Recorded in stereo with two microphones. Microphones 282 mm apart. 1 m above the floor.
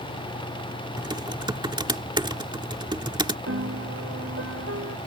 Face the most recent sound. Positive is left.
turn(degrees=-55)  # may be behind; listen again after turning